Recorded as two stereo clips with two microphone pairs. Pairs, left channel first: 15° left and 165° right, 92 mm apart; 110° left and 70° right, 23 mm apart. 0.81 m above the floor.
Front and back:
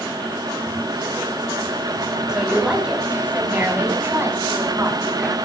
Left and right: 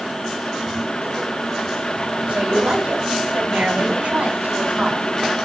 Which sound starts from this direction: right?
A woman speaking, at 2.3 s.